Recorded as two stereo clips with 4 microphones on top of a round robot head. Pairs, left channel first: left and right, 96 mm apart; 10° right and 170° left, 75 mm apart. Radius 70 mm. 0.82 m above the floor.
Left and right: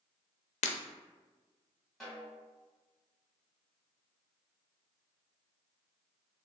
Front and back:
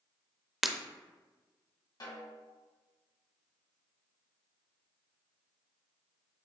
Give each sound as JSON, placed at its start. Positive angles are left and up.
{"t": 0.6, "sound": "breaking glass", "azimuth_deg": 80, "distance_m": 0.5}
{"t": 2.0, "sound": "a snare drum", "azimuth_deg": 0, "distance_m": 1.9}